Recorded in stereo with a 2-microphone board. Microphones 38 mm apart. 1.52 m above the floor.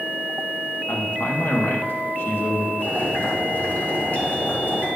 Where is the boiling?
55° left (ahead or behind), 3 m.